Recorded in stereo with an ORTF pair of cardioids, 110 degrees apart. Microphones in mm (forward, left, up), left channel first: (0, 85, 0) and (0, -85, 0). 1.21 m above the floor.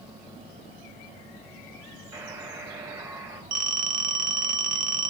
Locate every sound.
2.1 s a buzzer: 25° right, 2.5 m
3.5 s a phone ringing: 60° right, 0.8 m